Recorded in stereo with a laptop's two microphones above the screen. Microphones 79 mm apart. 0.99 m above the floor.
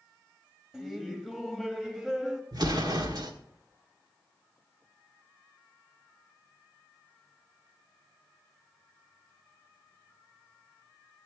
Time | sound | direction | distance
0.7 | laughter | 5° right (ahead or behind) | 1.6 m
2.5 | an explosion | 60° right (ahead or behind) | 1.2 m